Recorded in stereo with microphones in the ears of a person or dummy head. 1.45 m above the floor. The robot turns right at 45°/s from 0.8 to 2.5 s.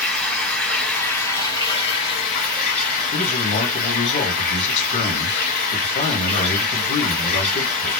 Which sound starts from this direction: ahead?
Running water, at 0.0 s.